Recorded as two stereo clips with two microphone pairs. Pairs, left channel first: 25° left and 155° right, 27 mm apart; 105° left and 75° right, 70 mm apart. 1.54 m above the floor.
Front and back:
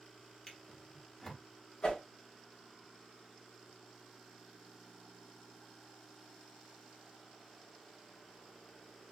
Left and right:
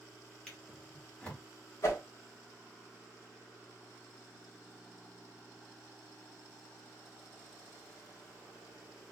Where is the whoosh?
60° left, 1.6 m.